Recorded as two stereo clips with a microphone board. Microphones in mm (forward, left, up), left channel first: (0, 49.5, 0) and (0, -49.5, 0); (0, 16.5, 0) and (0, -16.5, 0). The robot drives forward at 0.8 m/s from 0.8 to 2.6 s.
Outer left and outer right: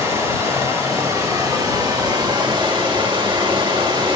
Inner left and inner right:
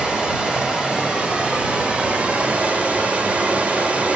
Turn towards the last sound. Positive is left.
turn(degrees=-50)  # may be behind; listen again after turning